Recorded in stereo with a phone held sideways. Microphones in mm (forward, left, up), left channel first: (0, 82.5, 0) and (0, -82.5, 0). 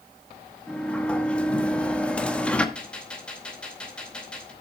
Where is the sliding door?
5° left (ahead or behind), 1.0 m.